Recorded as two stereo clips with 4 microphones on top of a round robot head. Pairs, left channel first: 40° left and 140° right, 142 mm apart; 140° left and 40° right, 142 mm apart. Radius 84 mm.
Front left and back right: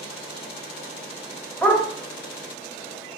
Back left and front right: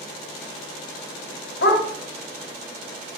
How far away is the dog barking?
About 2.5 m.